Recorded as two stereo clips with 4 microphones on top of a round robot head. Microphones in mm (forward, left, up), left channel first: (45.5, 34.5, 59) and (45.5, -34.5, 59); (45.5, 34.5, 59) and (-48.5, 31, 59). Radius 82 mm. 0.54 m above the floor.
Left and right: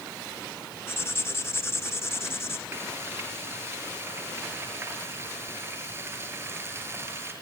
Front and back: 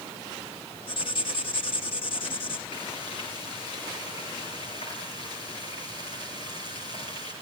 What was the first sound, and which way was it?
Writing, 35° left.